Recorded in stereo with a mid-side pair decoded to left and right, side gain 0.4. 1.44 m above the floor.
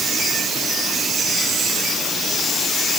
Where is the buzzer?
No buzzer in this recording.